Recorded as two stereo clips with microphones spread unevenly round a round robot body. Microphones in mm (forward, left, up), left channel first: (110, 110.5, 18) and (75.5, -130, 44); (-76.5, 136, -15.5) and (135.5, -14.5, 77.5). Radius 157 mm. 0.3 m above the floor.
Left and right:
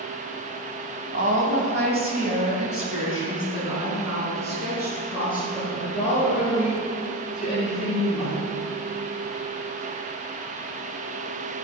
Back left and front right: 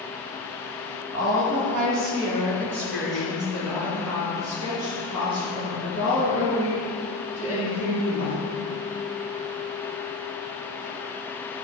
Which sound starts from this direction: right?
A woman speaking, at 1.1 s.